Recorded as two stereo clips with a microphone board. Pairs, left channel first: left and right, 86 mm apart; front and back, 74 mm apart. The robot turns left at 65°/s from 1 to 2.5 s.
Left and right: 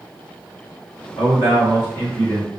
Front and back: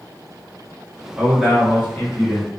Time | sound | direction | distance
1.2 | a man speaking | 115° left | 1.1 m